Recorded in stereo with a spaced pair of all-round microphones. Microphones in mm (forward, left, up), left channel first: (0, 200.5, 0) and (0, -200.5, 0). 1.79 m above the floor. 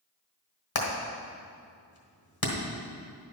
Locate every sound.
0.8 s hammering: 60° left (ahead or behind), 1.5 m